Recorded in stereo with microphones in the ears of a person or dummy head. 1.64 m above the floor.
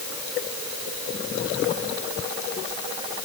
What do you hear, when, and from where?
Only background noise.